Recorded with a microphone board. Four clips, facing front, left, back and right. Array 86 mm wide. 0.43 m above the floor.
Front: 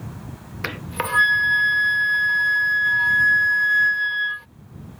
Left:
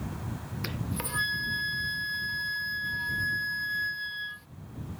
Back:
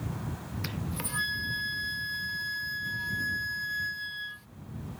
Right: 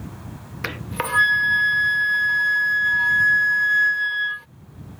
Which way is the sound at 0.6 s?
45° right.